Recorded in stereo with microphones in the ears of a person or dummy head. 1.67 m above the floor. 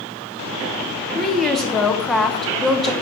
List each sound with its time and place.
1.1 s a woman speaking: 10° right (ahead or behind), 0.6 m